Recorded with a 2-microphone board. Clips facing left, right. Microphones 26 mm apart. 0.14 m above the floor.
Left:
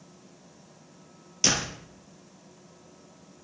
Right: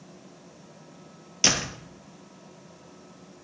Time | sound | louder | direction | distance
1.4 | a door slam | right 2 dB | 20° right (ahead or behind) | 2 m